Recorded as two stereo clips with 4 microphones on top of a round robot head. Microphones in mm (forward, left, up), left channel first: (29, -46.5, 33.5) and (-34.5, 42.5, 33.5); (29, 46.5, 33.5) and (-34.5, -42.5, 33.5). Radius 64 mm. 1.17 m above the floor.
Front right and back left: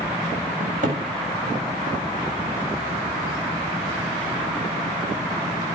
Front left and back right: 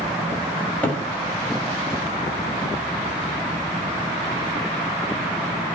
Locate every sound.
0.6 s a cupboard door: 135° left, 8 m